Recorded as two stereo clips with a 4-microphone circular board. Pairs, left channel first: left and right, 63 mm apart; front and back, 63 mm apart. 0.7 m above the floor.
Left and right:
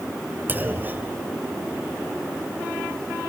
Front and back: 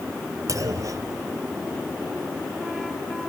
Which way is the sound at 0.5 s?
150° right.